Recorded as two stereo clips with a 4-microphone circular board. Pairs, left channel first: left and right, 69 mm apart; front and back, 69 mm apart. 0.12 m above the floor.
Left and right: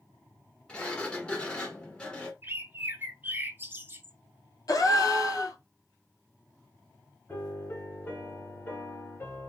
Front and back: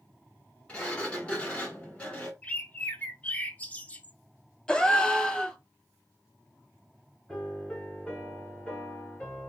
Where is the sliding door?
40° left, 1.2 m.